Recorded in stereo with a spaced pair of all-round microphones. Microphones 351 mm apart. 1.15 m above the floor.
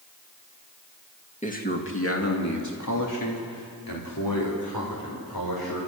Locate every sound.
1.4 s a man speaking: 20° left (ahead or behind), 2 m; by 5.8 s 85° left, 6 m